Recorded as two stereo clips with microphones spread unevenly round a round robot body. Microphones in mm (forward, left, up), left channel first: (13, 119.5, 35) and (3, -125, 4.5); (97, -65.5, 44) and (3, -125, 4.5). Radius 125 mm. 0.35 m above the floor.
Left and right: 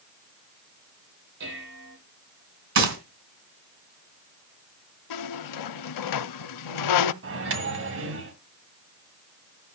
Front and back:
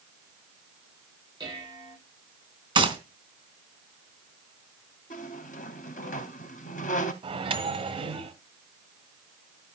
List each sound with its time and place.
1.4 s dishes clattering: 100° right, 9 m
2.8 s a gunshot: 125° right, 3 m
5.1 s a squeak: 85° left, 0.6 m
7.2 s a microwave: 125° right, 1.8 m